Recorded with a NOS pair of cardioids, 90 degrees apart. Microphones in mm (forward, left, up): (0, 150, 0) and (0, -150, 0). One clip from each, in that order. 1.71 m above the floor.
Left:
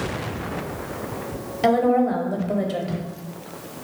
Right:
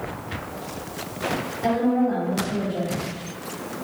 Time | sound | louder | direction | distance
1.6 | a woman speaking | left 5 dB | 60° left | 0.8 m